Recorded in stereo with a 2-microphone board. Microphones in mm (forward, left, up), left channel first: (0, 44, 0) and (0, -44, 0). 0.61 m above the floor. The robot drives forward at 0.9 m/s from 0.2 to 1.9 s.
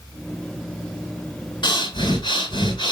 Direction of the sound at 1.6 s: 60° left (ahead or behind).